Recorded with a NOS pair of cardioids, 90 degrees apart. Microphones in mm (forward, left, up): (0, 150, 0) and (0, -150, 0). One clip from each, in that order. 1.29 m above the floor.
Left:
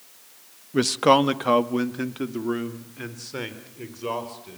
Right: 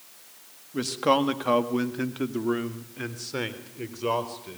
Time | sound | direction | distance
0.7 | a man speaking | 50° left | 1.6 m